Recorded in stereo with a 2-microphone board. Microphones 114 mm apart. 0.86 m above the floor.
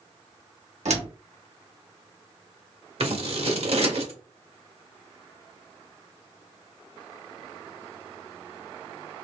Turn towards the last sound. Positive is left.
turn(degrees=-65)  # may be behind; listen again after turning